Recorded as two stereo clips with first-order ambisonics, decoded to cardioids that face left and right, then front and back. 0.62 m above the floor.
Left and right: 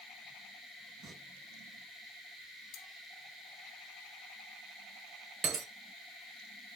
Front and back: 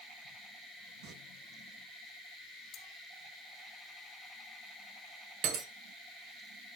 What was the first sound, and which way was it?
Singing, 150° right.